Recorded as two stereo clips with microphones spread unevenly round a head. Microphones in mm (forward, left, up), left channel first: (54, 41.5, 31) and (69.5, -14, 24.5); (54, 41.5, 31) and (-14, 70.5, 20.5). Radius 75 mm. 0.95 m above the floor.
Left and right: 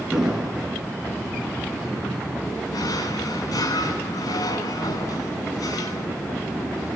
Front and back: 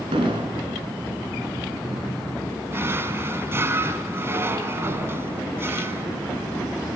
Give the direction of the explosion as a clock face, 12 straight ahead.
5 o'clock.